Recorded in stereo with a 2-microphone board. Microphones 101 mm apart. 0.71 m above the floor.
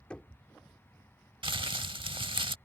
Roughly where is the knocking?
Centre.